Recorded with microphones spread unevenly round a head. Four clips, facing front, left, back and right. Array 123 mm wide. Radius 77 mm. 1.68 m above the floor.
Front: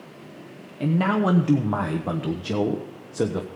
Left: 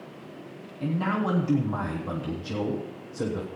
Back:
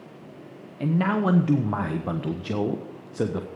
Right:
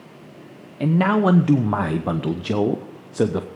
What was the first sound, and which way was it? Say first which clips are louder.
A man speaking: right 9 dB, front 2 dB; 75° right.